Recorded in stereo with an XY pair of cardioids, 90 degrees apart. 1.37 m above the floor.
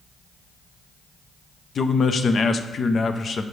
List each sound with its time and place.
1.8 s a man speaking: 50° left, 0.6 m